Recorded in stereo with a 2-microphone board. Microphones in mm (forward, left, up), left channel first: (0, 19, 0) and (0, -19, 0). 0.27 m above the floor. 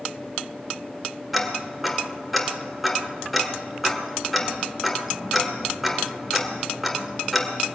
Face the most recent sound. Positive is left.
turn(degrees=0)  # may be behind; listen again after turning